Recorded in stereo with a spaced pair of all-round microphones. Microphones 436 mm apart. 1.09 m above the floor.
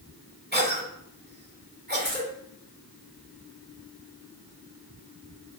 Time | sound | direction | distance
0.5 | a cough | 20° right (ahead or behind) | 2 m
2.0 | keys jangling | 25° right (ahead or behind) | 2.5 m